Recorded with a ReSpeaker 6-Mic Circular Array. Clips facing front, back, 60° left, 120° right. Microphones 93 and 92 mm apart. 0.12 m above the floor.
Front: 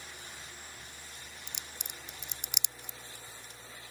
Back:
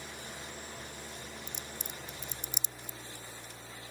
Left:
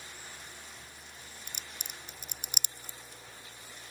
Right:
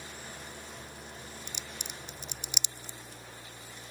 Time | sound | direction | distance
0.0 | an engine running | 165° right | ?
1.5 | a crack | 20° left | ?